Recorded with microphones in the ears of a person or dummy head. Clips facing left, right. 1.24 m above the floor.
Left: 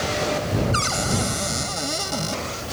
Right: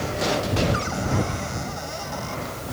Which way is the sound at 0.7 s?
45° left (ahead or behind).